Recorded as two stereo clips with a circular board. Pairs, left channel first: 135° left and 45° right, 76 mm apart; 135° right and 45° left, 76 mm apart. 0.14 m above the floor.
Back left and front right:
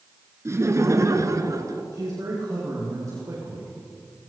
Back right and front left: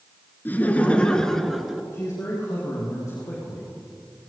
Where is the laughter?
80° right, 1.8 m; by 1.8 s 40° right, 1.8 m.